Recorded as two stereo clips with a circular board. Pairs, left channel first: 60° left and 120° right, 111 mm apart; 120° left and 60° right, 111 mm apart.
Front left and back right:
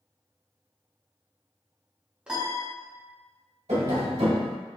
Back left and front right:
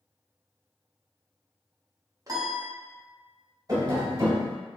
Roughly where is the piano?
Ahead right.